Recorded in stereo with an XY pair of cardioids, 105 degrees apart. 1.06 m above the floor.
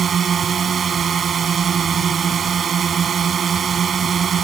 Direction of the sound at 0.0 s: 45° right.